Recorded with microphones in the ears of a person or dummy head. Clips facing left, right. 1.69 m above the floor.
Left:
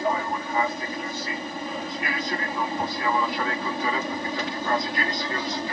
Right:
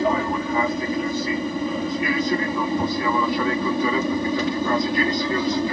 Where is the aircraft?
60° right (ahead or behind); by 5.7 s 70° right (ahead or behind).